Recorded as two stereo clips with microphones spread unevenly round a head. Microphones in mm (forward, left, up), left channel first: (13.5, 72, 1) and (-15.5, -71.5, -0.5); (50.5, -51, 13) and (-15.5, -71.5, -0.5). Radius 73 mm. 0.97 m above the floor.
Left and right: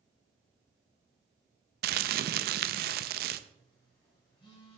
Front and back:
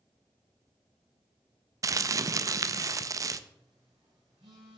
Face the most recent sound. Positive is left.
turn(degrees=140)